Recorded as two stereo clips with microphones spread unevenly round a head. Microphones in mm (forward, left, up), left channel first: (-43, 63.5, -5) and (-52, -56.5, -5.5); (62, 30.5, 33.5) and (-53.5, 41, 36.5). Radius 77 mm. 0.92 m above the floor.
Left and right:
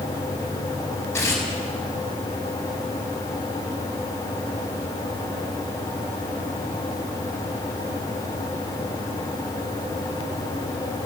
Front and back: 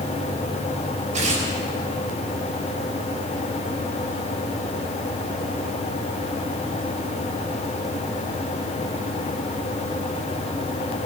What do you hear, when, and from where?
1.1 s tearing paper: 155° left, 4.5 m